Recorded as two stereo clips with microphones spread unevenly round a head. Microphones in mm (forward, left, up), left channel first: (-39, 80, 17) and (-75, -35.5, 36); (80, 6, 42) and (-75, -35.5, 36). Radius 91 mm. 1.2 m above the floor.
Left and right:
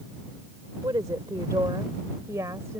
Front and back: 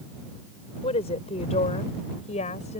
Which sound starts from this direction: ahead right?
A woman speaking, at 0.8 s.